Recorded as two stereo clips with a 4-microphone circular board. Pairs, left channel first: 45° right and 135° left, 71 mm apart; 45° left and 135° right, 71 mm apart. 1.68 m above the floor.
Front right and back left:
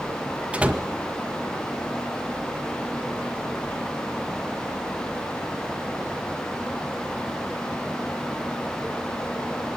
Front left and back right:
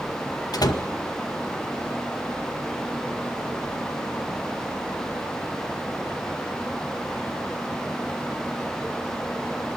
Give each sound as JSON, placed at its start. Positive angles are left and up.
{"t": 0.5, "sound": "a door slam", "azimuth_deg": 65, "distance_m": 1.9}